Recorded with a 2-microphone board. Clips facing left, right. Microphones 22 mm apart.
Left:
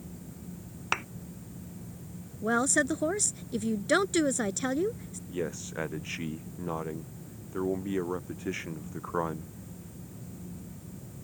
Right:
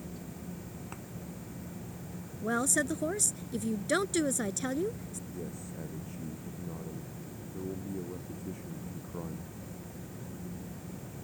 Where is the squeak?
No squeak in this recording.